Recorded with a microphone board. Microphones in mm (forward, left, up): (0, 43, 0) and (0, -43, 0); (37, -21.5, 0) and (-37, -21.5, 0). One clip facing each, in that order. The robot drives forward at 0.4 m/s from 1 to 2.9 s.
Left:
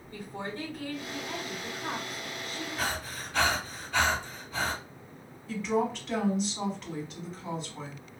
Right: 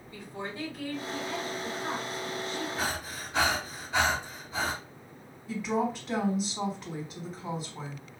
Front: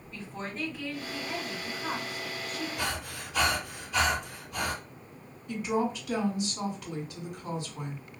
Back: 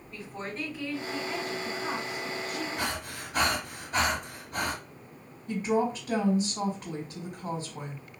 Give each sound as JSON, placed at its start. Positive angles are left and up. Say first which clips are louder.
{"t": 0.1, "sound": "a woman speaking", "louder": "left 1 dB, back 1 dB", "azimuth_deg": 95, "distance_m": 2.5}
{"t": 2.8, "sound": "breathing", "louder": "even, back 1 dB", "azimuth_deg": -160, "distance_m": 2.0}
{"t": 5.5, "sound": "a woman speaking", "louder": "left 1 dB, back 2 dB", "azimuth_deg": -170, "distance_m": 1.6}